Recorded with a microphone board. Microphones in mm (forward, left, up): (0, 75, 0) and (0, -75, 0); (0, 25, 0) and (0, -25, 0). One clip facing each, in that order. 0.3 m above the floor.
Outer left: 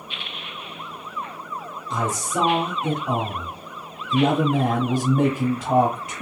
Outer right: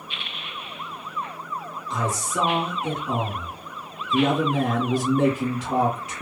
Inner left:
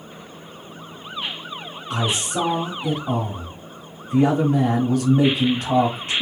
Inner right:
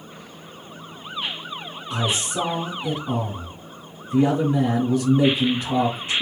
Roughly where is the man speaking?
Left.